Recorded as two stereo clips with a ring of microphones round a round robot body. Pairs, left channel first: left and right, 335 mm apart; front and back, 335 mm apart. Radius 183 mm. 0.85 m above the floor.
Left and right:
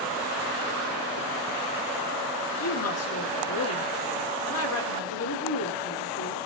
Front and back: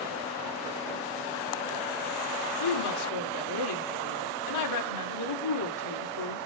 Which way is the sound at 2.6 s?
40° left.